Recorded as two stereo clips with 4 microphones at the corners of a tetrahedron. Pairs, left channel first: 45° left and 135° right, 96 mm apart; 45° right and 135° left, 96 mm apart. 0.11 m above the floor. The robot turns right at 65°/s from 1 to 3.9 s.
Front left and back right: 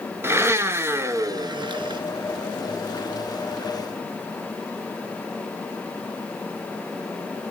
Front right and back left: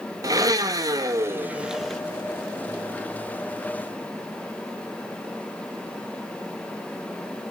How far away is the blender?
About 0.7 m.